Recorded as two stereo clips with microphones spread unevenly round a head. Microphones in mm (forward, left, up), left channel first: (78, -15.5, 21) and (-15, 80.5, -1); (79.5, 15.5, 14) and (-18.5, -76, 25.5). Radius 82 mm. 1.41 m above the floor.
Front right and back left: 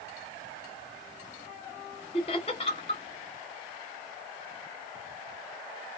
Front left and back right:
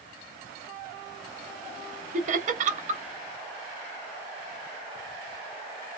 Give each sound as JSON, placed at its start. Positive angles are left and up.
{"t": 2.1, "sound": "laughter", "azimuth_deg": -105, "distance_m": 1.0}